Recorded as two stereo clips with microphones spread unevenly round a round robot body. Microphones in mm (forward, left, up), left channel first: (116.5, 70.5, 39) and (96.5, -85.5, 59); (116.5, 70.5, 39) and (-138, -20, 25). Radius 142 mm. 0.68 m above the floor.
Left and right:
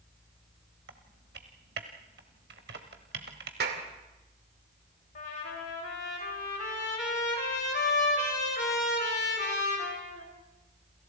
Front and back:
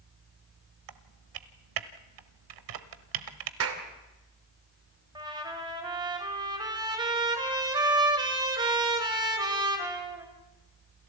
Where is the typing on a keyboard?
145° right, 1.1 m.